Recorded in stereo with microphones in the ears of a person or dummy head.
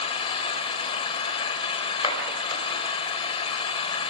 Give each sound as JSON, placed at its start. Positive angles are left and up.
{"t": 0.0, "sound": "an engine running", "side_deg": 30, "distance_m": 3.0}
{"t": 2.0, "sound": "a clap", "side_deg": 30, "distance_m": 5.0}